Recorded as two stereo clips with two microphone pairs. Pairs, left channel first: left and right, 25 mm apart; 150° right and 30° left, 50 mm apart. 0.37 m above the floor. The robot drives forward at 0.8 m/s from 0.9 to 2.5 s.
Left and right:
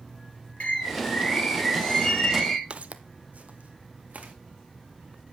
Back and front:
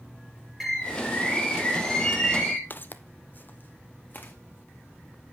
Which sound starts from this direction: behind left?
A bird, at 0.6 s.